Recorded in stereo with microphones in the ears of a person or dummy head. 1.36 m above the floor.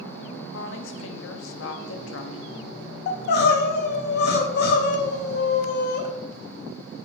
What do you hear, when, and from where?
0.5 s a woman speaking: 70° left (ahead or behind), 0.5 m
3.1 s crying: 60° left (ahead or behind), 0.5 m